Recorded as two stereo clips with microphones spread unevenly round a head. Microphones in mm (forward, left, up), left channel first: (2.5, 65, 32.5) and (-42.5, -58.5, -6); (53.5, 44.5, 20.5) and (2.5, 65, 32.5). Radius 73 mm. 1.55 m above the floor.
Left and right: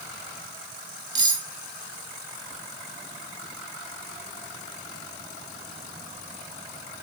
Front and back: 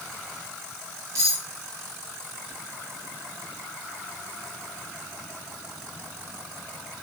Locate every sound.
1.1 s cutlery clinking: 175° right, 1.6 m